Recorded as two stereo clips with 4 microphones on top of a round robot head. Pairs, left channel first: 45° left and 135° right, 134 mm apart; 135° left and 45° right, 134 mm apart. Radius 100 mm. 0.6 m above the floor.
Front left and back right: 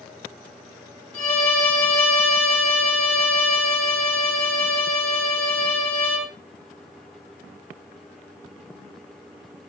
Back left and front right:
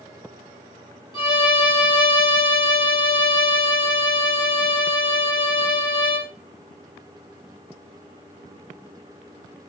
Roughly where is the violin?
Left.